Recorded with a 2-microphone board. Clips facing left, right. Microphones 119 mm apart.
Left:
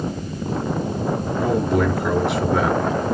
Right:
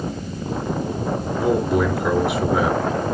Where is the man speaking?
5° right (ahead or behind), 2.5 m.